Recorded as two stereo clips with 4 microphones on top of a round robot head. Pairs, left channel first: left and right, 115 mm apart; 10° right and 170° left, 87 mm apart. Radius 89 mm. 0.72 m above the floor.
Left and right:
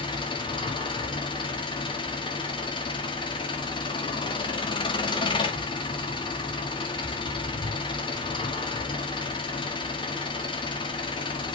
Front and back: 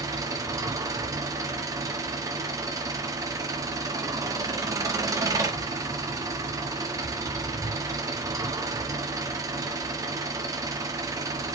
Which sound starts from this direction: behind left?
An engine running, at 0.0 s.